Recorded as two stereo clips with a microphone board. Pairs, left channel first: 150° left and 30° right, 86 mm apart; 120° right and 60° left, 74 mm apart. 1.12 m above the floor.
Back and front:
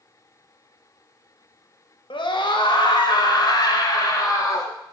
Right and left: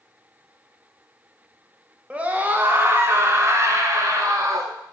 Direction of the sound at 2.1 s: 135° left.